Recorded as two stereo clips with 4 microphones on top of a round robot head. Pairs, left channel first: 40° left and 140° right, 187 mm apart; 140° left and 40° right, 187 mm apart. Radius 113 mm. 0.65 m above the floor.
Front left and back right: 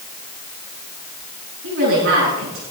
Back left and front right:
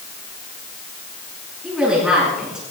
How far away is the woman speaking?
About 8.5 m.